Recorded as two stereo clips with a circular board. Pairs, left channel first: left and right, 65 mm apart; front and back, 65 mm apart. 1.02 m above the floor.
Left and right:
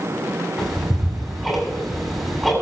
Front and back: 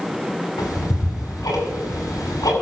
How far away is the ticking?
About 7.5 m.